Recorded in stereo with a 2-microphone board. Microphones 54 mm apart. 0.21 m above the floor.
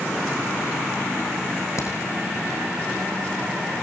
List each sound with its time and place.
1.8 s a crack: 60° left (ahead or behind), 7 m